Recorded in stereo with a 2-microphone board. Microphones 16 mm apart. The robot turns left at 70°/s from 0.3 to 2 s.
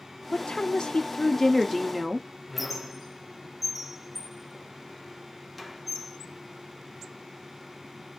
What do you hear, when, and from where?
0.3 s a woman speaking: 95° left, 0.5 m; by 2.3 s 25° right, 0.5 m
2.5 s a squeak: centre (ahead or behind), 0.5 m